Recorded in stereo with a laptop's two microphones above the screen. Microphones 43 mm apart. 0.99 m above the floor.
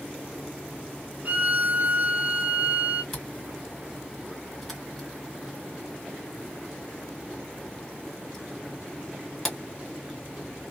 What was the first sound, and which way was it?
A violin, 35° right (ahead or behind).